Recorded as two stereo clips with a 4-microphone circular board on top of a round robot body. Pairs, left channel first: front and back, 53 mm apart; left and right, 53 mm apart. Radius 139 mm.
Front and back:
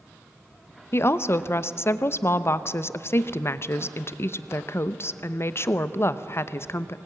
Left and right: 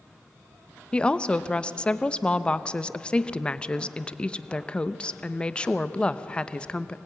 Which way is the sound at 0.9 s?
20° left.